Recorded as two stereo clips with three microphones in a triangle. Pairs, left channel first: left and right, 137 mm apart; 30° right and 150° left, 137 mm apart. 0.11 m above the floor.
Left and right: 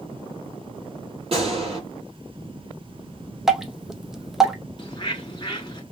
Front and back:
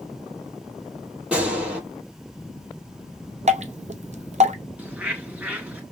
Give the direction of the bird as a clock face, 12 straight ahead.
9 o'clock.